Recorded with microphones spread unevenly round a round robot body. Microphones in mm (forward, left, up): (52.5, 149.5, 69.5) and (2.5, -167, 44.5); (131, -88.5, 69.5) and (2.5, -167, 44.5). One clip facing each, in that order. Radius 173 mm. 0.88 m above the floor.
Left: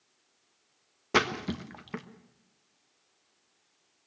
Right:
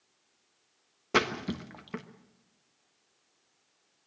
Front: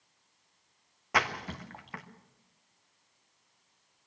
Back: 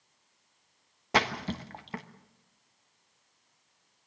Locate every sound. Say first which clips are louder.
1.1 s a splash: even, back 3 dB; 175° left, 1.2 m